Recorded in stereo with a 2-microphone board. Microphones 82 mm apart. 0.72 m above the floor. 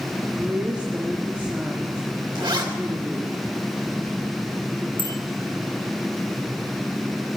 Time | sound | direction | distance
0.3 | a woman speaking | 15° right (ahead or behind) | 1.2 m
2.4 | a zipper | 75° right (ahead or behind) | 2.5 m
5.0 | a bicycle bell | 85° left | 4.5 m